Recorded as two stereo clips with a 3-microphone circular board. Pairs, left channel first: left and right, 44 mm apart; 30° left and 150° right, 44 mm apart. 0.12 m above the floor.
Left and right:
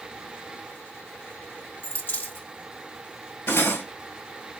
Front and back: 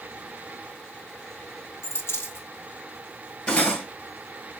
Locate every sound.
1.8 s a dropped coin: 45° left, 2.0 m
3.5 s cutlery clinking: 85° left, 1.4 m